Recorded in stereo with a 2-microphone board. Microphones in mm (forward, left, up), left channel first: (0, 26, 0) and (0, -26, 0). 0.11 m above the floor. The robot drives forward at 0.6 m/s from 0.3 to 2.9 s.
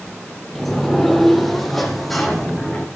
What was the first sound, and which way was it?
A sliding door, 5° left (ahead or behind).